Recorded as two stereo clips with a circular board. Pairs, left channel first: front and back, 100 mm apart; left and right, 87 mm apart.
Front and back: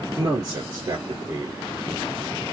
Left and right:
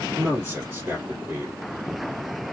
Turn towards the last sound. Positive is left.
turn(degrees=-140)